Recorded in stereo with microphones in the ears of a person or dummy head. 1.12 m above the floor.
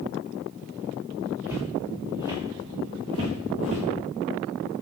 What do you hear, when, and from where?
1.5 s footsteps: 15° right (ahead or behind), 4.5 m; by 3.9 s 40° right (ahead or behind), 3.5 m